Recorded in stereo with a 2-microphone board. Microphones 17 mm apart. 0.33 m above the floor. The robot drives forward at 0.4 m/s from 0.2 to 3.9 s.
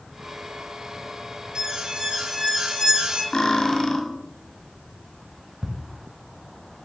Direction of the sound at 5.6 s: 25° right (ahead or behind).